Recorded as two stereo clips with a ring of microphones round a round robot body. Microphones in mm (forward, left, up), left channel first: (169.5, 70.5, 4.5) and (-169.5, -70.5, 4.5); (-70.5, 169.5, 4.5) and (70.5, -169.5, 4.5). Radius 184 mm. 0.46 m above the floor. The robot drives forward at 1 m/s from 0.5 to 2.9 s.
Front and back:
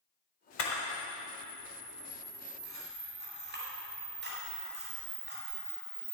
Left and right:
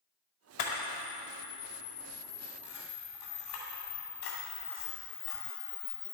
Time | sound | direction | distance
0.6 | a camera shutter | 70° left | 1.6 m